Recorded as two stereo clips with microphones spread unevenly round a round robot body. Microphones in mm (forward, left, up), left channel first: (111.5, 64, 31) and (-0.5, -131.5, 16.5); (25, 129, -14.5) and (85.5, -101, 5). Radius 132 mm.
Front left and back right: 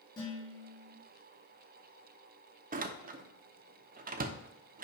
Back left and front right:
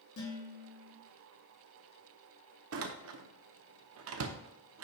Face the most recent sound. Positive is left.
turn(degrees=-80)